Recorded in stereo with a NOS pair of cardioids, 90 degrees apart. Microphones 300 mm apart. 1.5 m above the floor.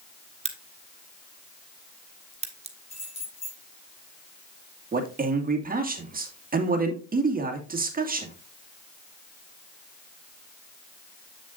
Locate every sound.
0.5 s a crack: 20° right, 1.4 m
2.9 s keys jangling: 20° left, 4.5 m
4.9 s a man speaking: 30° right, 2 m